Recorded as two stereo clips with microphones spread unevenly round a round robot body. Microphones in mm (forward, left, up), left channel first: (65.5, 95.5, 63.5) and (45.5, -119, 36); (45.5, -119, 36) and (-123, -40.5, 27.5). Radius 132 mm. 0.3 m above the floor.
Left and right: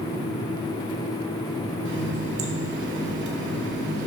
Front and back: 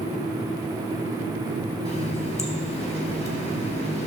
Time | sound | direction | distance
1.9 | a running tap | 75° right | 1.6 m